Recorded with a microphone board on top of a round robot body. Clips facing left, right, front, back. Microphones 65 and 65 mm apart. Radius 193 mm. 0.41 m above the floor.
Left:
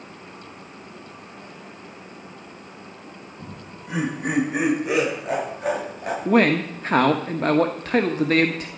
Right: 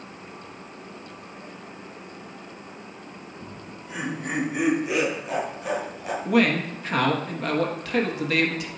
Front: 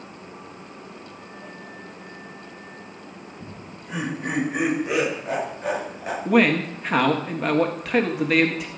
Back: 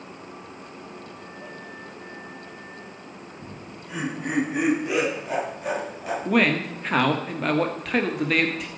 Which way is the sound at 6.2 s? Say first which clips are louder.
Left 3 dB, front 3 dB; 85° left.